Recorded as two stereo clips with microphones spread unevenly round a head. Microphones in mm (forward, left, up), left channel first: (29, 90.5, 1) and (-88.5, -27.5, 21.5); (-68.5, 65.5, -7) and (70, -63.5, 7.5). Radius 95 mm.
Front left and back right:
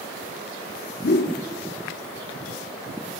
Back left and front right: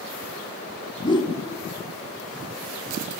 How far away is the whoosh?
About 1.3 m.